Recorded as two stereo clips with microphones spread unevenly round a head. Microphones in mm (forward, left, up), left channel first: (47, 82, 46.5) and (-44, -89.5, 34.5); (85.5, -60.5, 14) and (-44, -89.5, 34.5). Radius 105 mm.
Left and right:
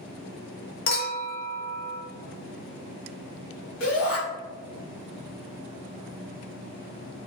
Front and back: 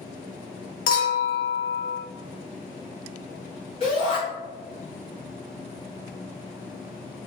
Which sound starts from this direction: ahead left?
A clink, at 0.9 s.